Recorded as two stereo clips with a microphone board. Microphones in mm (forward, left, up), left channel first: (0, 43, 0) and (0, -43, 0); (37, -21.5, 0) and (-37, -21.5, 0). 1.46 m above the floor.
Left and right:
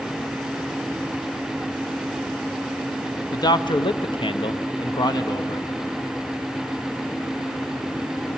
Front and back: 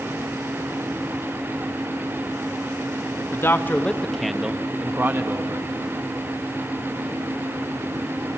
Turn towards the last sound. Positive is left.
turn(degrees=135)